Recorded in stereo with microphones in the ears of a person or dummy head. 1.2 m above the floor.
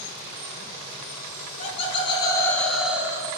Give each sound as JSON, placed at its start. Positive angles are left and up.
{"t": 1.6, "sound": "laughter", "side_deg": 35, "distance_m": 1.1}